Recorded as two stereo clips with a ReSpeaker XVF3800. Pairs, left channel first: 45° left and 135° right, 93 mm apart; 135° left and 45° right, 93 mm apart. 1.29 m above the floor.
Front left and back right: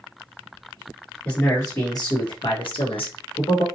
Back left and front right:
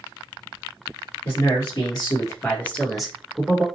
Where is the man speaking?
110° left, 1.2 m; by 3.6 s 20° left, 1.1 m.